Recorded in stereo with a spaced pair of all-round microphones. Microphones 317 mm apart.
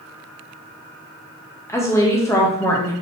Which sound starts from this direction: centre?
A woman speaking, at 1.7 s.